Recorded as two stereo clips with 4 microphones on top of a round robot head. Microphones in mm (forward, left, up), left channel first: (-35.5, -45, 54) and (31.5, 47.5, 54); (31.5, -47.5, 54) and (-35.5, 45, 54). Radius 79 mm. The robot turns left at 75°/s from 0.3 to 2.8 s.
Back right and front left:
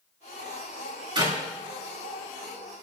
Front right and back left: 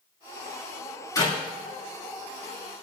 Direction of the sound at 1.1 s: 5° left.